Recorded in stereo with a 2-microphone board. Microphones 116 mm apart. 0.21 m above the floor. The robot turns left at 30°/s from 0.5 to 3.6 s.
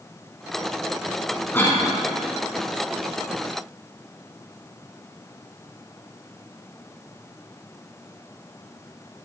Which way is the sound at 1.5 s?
20° left (ahead or behind).